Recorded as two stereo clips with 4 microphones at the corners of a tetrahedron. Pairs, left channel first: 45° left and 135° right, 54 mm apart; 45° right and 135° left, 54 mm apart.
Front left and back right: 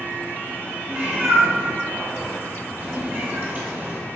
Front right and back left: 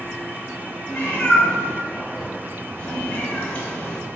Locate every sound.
0.9 s a cat meowing: 95° right, 1.2 m